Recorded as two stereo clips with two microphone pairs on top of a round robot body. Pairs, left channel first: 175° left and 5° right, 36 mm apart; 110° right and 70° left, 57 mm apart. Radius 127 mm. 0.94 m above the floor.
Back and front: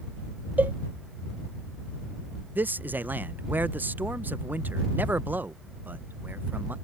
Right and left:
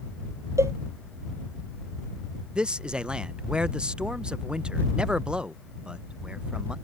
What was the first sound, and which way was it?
A cowbell, 30° left.